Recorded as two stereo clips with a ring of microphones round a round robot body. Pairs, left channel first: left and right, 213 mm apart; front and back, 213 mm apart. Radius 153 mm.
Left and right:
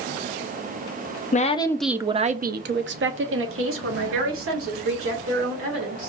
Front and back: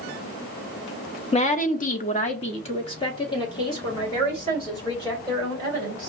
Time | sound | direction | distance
1.3 | a woman speaking | 50° left | 0.6 m